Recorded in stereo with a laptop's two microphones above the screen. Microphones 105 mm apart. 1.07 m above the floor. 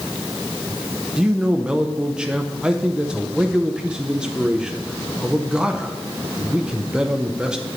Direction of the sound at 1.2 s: 5° right (ahead or behind).